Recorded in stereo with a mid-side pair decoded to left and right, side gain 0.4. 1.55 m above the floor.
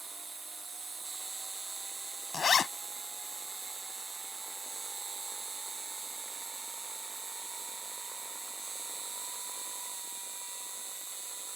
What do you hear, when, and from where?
0.0 s an insect: 30° right
2.3 s a zipper: 50° left